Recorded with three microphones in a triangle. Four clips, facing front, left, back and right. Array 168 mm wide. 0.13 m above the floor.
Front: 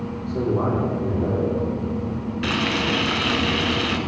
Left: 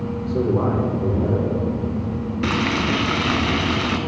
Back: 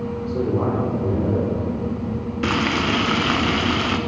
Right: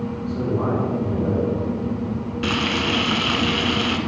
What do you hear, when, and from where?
0.3 s a man speaking: 120° left, 6 m
2.4 s frying: 155° left, 1.3 m